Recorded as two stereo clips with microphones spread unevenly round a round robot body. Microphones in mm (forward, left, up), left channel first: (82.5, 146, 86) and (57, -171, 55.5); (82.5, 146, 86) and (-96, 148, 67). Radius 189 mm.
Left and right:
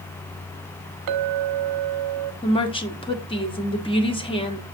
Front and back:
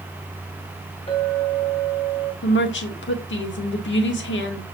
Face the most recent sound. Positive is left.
turn(degrees=10)